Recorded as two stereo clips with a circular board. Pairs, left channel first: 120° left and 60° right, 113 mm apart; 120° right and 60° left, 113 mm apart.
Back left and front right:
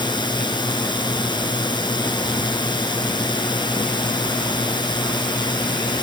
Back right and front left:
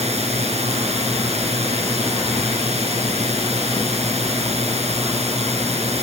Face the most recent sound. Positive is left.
turn(degrees=75)